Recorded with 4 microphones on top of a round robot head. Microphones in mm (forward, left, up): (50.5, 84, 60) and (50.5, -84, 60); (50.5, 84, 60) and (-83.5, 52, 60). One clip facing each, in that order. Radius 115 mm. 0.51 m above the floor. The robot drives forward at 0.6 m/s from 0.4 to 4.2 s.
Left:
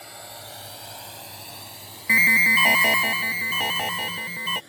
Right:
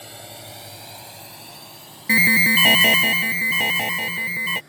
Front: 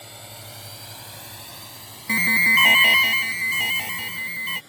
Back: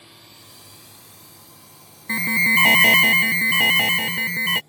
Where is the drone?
35° right; by 4.7 s 30° left.